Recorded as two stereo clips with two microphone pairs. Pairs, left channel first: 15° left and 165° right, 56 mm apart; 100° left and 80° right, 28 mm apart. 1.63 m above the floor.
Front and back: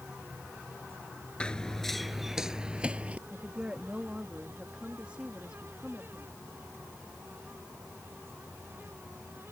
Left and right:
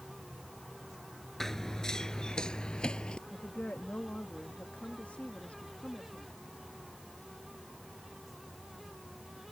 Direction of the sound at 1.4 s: 40° left.